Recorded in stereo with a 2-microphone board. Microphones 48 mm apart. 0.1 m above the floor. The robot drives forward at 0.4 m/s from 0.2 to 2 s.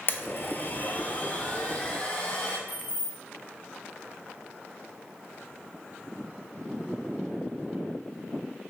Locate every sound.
0.1 s a blender: 50° left (ahead or behind), 0.5 m; by 2.6 s 25° left (ahead or behind), 1.0 m
2.7 s keys jangling: 40° right (ahead or behind), 1.4 m